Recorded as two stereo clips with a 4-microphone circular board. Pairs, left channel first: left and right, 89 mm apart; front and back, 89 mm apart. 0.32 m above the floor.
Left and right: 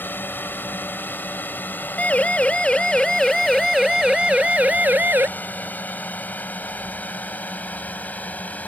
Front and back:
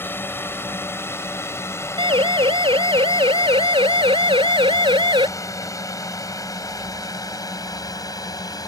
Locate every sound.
0.0 s a drone: 45° left; by 8.7 s 25° left
2.0 s a siren: 165° left; by 5.3 s 155° right